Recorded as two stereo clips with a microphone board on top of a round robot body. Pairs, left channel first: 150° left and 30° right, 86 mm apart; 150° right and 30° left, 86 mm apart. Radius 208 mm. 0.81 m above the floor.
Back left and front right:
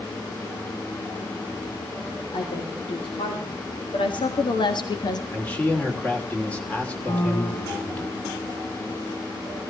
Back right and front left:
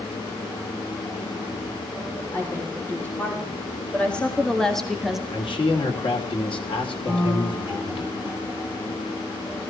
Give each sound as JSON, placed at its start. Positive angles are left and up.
{"t": 2.3, "sound": "a woman speaking", "azimuth_deg": 140, "distance_m": 3.0}
{"t": 5.3, "sound": "a man speaking", "azimuth_deg": -135, "distance_m": 3.0}
{"t": 7.1, "sound": "a piano", "azimuth_deg": 120, "distance_m": 6.0}